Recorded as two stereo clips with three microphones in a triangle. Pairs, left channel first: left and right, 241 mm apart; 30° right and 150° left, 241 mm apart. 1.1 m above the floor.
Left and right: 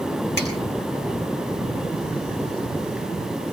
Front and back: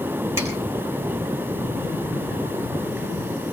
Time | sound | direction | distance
0.4 | a finger snap | 130° right | 6 m